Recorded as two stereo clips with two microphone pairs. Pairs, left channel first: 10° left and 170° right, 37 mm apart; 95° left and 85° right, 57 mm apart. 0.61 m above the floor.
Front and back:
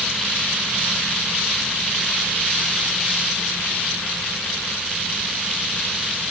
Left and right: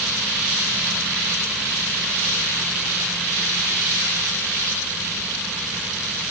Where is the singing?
No singing in this recording.